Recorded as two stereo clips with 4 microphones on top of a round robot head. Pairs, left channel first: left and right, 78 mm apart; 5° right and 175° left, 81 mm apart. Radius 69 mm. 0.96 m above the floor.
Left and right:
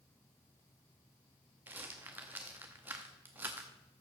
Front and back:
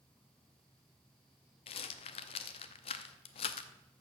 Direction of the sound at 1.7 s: 15° right.